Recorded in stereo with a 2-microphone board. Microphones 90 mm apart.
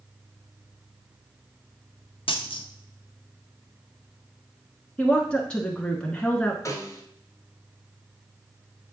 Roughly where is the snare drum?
Left.